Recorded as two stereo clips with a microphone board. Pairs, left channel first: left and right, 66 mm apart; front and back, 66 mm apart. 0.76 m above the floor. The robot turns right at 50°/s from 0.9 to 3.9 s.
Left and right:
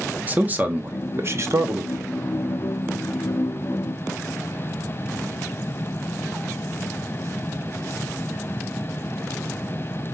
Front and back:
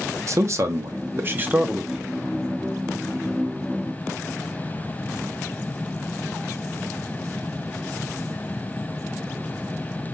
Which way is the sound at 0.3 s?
150° right.